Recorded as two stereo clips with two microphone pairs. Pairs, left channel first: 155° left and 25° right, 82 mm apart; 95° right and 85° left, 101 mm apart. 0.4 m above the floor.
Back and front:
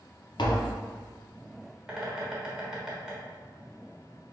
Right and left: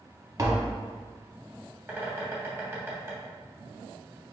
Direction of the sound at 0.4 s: 140° left.